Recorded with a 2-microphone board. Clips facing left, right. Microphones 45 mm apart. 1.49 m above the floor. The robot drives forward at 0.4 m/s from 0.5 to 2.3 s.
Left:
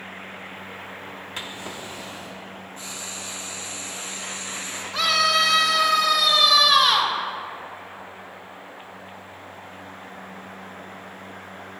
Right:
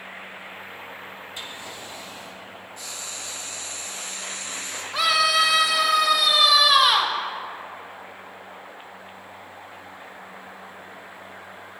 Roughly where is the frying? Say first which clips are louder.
Left 1 dB; left.